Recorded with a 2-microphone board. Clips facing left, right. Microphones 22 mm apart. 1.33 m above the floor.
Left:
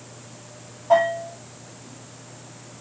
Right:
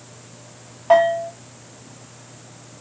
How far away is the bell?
About 1.0 m.